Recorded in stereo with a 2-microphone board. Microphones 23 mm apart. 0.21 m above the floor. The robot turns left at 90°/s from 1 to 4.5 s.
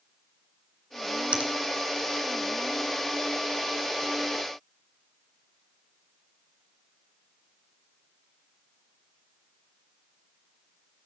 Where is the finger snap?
60° right (ahead or behind), 2.5 m; by 1.5 s 55° right (ahead or behind), 2.5 m.